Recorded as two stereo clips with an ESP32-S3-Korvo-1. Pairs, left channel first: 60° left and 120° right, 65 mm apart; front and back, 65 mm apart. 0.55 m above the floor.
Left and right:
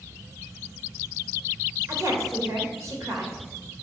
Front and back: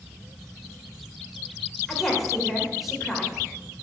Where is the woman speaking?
90° right, 1.9 m.